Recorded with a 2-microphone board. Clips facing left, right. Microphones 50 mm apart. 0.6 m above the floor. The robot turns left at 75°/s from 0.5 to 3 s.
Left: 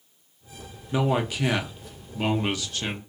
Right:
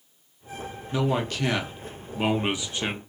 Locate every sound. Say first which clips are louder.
0.9 s a man speaking: left 1 dB; 20° left (ahead or behind), 0.5 m; by 3.0 s 20° right (ahead or behind), 0.5 m